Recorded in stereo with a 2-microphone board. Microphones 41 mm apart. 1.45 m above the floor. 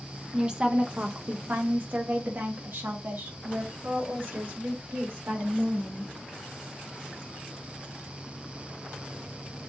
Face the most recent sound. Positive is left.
turn(degrees=-85)